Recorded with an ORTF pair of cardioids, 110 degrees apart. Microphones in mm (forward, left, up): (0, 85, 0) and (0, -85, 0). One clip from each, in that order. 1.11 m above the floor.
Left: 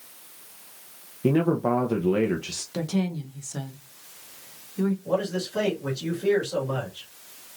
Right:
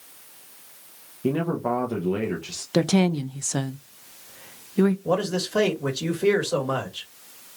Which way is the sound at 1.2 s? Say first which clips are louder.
Left 2 dB; 15° left.